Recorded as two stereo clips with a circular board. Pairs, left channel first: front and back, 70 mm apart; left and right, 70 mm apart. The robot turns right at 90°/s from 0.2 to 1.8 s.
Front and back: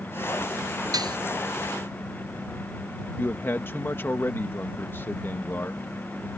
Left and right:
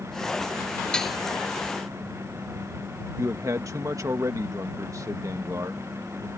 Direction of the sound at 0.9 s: 165° left.